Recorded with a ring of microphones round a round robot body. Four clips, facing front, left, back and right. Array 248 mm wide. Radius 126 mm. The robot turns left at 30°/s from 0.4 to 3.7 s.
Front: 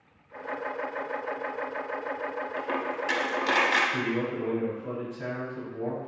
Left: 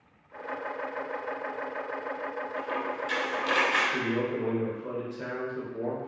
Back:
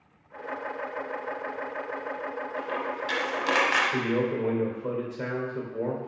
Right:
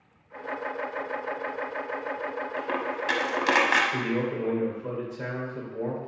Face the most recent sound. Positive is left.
turn(degrees=-170)